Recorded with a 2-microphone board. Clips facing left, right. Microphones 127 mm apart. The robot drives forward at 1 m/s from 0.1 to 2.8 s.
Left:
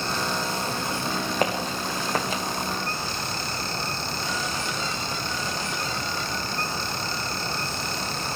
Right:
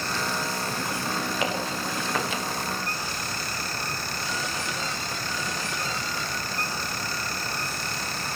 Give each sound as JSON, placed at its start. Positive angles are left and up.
{"t": 1.4, "sound": "footsteps", "side_deg": 40, "distance_m": 5.5}